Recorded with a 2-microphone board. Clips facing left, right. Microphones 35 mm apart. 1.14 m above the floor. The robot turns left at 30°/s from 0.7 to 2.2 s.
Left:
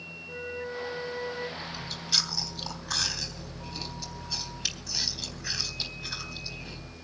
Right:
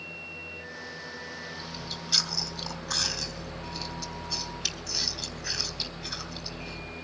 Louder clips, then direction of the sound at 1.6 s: Even; 15° right (ahead or behind).